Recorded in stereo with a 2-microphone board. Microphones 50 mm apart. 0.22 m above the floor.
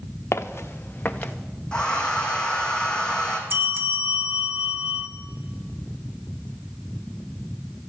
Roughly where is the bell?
Right.